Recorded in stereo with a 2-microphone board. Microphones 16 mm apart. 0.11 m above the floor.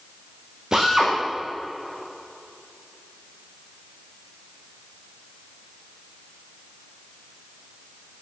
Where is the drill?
30° right (ahead or behind), 6 m.